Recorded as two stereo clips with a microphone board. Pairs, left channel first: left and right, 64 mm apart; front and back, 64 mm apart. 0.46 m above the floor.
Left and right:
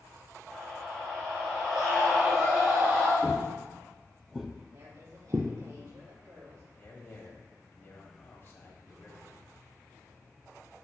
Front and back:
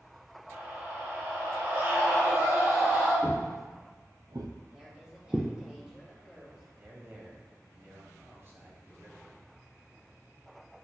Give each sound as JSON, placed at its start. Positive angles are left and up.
{"t": 0.5, "sound": "a scream", "azimuth_deg": 165, "distance_m": 1.8}
{"t": 3.2, "sound": "footsteps", "azimuth_deg": 140, "distance_m": 1.9}
{"t": 4.7, "sound": "a woman speaking", "azimuth_deg": -100, "distance_m": 2.5}
{"t": 6.8, "sound": "a man speaking", "azimuth_deg": 135, "distance_m": 2.0}